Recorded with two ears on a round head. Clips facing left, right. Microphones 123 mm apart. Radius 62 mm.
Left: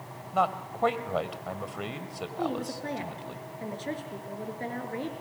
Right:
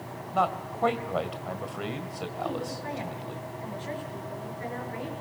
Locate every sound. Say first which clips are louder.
0.3 s a man speaking: even; centre (ahead or behind), 1.8 m
2.4 s a woman speaking: left 2 dB; 45° left (ahead or behind), 5.5 m